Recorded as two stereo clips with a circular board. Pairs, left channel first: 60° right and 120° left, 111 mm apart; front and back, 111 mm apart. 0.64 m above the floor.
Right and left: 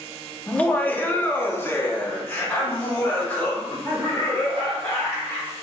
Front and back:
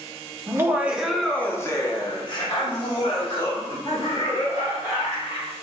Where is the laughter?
130° right, 0.8 m; by 5.6 s 15° left, 2.5 m.